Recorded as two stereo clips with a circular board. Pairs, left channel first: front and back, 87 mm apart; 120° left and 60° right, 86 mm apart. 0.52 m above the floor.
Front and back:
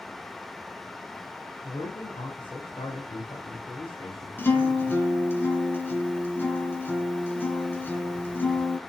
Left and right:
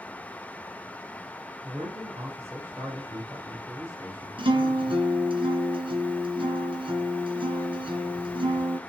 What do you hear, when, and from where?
1.6 s a man speaking: 5° right, 2.5 m
4.4 s a guitar: 65° right, 1.7 m